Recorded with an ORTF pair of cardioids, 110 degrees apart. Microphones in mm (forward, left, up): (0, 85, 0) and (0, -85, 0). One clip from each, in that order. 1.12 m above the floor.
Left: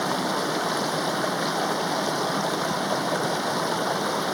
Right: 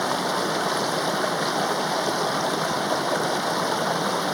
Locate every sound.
0.0 s running water: 15° right